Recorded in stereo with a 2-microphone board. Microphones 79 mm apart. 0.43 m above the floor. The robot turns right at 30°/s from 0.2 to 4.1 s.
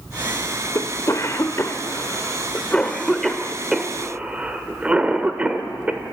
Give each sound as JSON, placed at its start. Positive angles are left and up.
{"t": 0.8, "sound": "a cough", "side_deg": 45, "distance_m": 1.1}